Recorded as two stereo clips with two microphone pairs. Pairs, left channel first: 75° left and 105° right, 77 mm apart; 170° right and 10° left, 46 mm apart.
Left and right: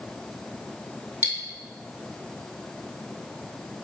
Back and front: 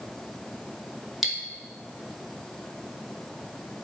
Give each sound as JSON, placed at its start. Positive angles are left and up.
{"t": 1.2, "sound": "cutlery clinking", "azimuth_deg": -75, "distance_m": 0.7}